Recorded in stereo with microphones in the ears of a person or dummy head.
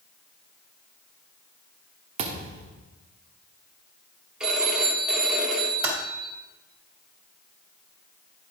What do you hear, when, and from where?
2.2 s a thud: 35° right (ahead or behind), 1.0 m
4.4 s a phone ringing: 5° right (ahead or behind), 1.5 m
5.8 s typing on a keyboard: 10° right (ahead or behind), 3 m